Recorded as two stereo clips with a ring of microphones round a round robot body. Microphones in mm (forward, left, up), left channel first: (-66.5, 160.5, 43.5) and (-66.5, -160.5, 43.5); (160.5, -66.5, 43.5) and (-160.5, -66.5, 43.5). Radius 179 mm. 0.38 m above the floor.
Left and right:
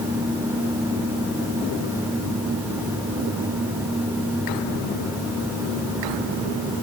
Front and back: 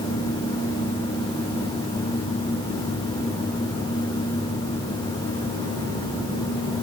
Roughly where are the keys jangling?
No keys jangling in this recording.